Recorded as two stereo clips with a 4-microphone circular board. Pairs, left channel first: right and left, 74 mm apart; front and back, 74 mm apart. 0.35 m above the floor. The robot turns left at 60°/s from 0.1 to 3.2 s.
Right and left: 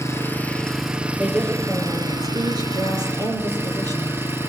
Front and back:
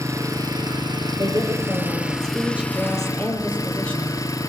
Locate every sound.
0.0 s an engine running: 140° right, 2.5 m; by 4.5 s 35° left, 2.5 m
1.2 s a woman speaking: 170° right, 9 m; by 4.2 s 70° left, 9 m